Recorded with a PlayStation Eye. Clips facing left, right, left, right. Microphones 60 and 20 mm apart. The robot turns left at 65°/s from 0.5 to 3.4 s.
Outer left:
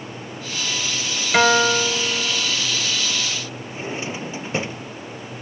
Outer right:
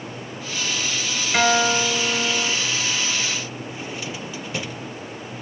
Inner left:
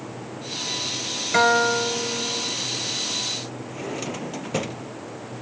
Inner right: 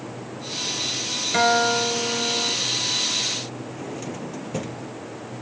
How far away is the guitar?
About 1.6 m.